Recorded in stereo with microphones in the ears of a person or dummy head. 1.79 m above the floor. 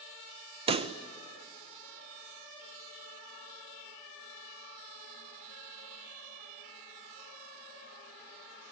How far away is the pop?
About 0.6 m.